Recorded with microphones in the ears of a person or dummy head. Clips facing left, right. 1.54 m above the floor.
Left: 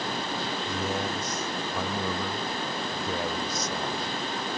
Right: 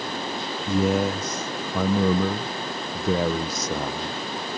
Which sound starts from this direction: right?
A man speaking, at 0.7 s.